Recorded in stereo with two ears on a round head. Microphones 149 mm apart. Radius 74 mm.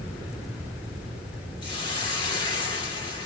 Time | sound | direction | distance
1.6 | a hiss | 30° left (ahead or behind) | 2.5 m